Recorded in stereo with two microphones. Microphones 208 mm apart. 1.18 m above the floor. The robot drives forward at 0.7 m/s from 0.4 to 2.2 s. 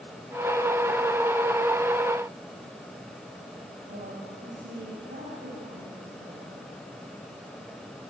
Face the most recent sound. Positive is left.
turn(degrees=-50)  # may be behind; listen again after turning